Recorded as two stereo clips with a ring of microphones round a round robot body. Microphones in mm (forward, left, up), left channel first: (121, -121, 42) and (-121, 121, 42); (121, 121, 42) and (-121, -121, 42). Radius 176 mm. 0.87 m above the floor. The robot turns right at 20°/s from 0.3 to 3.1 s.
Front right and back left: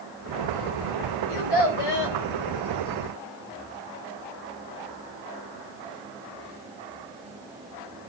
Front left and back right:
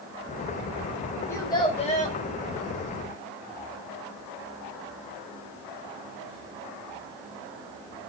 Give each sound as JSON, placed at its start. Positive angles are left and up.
{"t": 1.3, "sound": "a child speaking", "azimuth_deg": -40, "distance_m": 3.5}